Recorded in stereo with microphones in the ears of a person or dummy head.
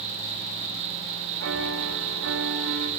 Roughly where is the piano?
Right.